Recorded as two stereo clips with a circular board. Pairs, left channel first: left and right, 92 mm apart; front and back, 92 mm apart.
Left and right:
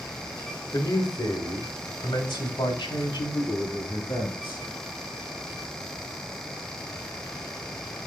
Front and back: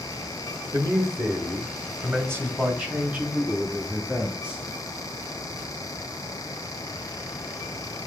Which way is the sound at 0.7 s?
140° left.